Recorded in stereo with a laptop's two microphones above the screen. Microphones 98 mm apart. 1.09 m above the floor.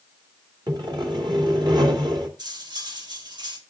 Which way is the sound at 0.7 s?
50° right (ahead or behind).